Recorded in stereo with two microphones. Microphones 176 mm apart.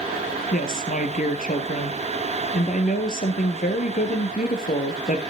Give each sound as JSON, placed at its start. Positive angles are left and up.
{"t": 0.5, "sound": "a woman speaking", "side_deg": 50, "distance_m": 2.0}